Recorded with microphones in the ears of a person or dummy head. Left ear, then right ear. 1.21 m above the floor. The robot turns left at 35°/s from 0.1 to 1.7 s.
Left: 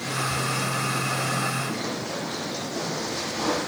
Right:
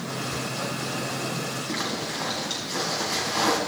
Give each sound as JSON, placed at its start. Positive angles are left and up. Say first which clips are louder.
{"t": 1.7, "sound": "a zipper", "louder": "right 1 dB", "side_deg": -50, "distance_m": 3.0}